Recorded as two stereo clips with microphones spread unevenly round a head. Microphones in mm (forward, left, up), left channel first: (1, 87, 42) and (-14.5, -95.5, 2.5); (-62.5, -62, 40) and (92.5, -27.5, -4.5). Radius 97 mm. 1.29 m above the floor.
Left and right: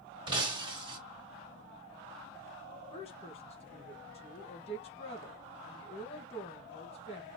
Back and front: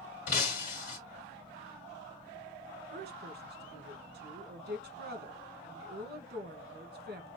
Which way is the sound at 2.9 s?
25° left.